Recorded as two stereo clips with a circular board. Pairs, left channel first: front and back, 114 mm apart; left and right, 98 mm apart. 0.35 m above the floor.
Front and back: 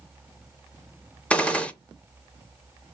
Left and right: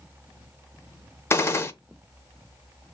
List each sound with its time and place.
1.3 s a gunshot: 70° left, 0.6 m